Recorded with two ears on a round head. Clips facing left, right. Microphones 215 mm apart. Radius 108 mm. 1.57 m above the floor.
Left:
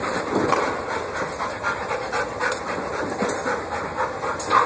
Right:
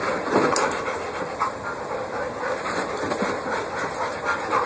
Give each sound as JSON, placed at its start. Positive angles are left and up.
{"t": 0.5, "sound": "a clap", "side_deg": 65, "distance_m": 5.0}